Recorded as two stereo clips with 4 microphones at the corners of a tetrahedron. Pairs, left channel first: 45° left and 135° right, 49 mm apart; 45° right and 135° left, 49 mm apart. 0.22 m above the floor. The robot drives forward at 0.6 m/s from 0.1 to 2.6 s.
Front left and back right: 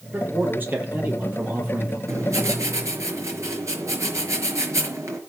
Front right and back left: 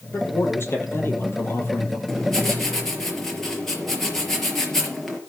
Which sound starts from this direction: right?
A man speaking, at 0.1 s.